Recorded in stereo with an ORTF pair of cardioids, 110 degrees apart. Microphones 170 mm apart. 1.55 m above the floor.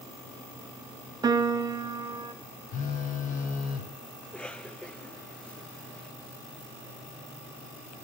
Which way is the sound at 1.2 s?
20° right.